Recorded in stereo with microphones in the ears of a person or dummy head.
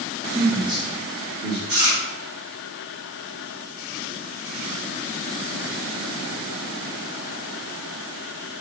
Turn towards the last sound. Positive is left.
turn(degrees=-55)  # may be behind; listen again after turning